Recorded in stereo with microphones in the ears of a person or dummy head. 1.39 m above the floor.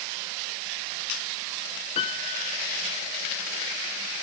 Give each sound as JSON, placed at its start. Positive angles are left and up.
{"t": 1.9, "sound": "a piano", "side_deg": 30}